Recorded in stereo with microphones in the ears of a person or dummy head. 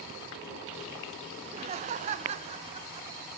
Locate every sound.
1.4 s laughter: 25° right (ahead or behind), 0.8 m; by 3.3 s 30° right (ahead or behind), 1.9 m